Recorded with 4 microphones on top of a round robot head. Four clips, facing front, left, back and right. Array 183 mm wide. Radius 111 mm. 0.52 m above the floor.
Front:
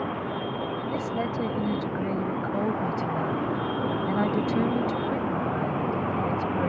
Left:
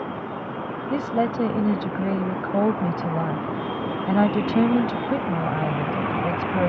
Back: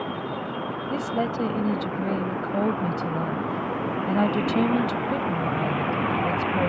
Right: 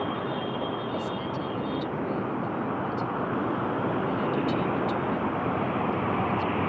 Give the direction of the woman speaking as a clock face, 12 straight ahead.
9 o'clock.